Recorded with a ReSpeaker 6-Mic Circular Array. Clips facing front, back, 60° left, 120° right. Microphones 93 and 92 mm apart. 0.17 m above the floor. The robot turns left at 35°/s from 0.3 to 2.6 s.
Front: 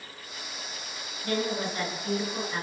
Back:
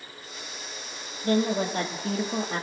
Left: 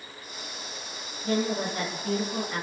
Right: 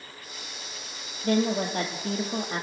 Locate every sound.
1.2 s a woman speaking: 130° right, 3.5 m; by 2.6 s 175° right, 3.5 m